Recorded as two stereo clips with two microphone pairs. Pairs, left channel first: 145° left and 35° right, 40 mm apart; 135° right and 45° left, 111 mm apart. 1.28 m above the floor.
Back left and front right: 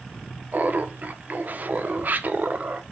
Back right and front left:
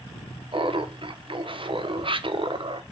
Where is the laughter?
5° left, 0.6 m.